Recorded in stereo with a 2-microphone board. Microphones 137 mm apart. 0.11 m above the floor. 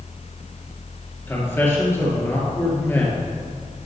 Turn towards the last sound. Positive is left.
turn(degrees=20)  # may be behind; listen again after turning